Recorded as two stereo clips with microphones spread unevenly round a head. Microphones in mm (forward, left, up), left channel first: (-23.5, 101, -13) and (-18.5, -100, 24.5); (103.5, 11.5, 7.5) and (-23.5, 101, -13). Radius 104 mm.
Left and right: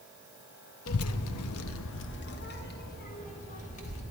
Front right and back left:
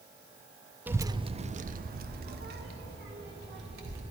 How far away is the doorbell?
No doorbell in this recording.